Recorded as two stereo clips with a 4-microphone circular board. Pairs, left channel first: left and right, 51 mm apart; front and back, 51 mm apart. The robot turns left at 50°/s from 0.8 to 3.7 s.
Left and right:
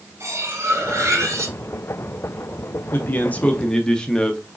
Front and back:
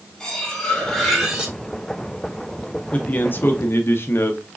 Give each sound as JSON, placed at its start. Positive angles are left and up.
{"t": 0.2, "sound": "cutlery clinking", "azimuth_deg": -75, "distance_m": 1.7}
{"t": 2.9, "sound": "a man speaking", "azimuth_deg": 60, "distance_m": 1.0}